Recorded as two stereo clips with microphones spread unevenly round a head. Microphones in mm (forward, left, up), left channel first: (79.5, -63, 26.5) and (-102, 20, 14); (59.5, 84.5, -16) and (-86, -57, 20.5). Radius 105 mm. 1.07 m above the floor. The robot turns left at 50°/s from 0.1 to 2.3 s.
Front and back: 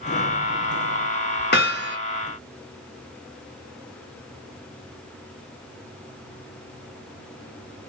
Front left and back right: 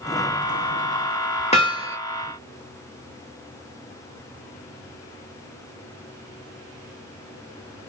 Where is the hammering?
20° right, 0.7 m; by 2.0 s 40° right, 0.7 m.